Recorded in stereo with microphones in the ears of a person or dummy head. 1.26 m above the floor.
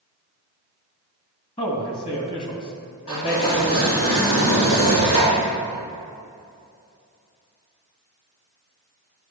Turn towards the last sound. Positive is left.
turn(degrees=75)  # may be behind; listen again after turning